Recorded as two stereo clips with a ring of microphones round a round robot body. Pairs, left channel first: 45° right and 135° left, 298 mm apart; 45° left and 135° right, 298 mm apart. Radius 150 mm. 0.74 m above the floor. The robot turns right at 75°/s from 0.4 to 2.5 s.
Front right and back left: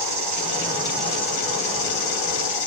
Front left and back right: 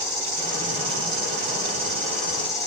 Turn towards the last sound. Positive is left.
turn(degrees=-25)